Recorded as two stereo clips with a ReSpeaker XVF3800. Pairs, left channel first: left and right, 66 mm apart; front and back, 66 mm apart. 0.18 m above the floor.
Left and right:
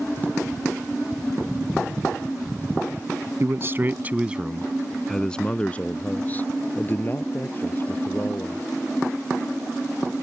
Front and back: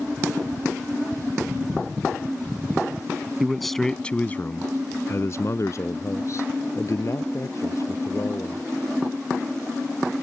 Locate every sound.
3.4 s a man speaking: 95° right; by 8.7 s 40° left